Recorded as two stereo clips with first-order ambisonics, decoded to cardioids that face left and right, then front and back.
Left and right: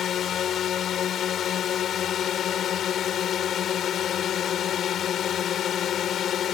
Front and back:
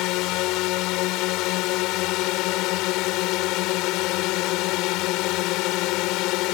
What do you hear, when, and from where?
0.0 s a drone: 30° left